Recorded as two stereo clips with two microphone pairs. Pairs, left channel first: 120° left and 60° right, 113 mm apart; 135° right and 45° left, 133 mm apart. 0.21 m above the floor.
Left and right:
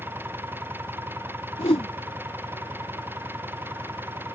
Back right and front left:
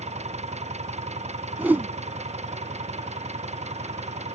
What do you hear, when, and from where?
0.0 s an engine running: 15° left
1.6 s a whoosh: 120° left